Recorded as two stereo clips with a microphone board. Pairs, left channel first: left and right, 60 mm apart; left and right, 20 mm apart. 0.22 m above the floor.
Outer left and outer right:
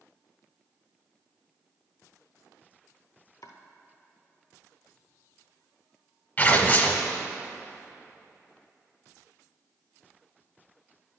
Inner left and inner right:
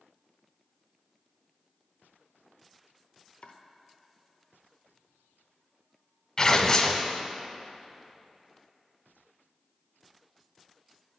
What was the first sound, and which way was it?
Chopping, 80° left.